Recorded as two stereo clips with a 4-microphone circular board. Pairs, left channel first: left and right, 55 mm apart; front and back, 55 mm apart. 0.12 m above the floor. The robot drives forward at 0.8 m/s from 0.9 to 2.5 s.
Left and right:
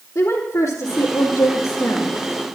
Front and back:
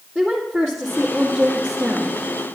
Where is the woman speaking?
85° left, 2.5 m; by 2.2 s 110° left, 3 m.